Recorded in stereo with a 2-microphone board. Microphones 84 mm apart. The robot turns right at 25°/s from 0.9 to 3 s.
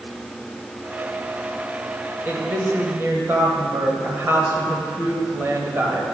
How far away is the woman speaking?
About 1.2 m.